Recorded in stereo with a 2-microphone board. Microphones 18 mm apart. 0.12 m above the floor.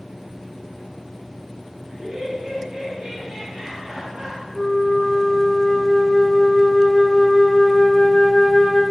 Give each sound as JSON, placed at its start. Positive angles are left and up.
{"t": 1.9, "sound": "laughter", "side_deg": -60, "distance_m": 3.0}
{"t": 4.5, "sound": "a flute", "side_deg": 5, "distance_m": 1.6}